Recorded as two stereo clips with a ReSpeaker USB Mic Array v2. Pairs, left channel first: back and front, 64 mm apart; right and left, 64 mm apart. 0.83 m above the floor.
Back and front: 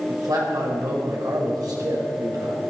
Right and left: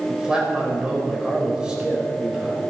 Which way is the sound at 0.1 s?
10° left.